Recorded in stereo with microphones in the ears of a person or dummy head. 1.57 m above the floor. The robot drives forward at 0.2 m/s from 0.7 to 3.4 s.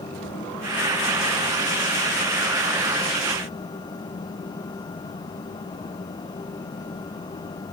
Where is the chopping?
I don't hear chopping.